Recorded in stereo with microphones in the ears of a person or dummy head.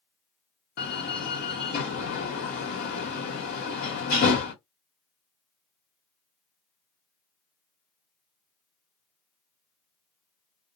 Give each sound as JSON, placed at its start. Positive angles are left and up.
{"t": 0.8, "sound": "a door slam", "side_deg": 50, "distance_m": 1.0}